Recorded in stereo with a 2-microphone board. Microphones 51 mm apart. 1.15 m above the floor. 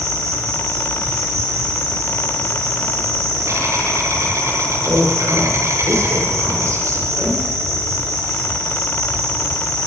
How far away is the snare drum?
I don't hear a snare drum.